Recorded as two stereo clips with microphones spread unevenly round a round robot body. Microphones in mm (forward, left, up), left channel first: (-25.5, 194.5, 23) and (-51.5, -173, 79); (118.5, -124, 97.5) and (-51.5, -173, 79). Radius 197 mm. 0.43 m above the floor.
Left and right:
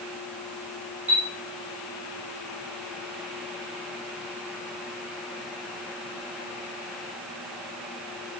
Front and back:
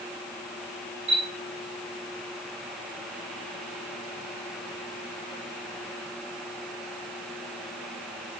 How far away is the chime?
About 9 m.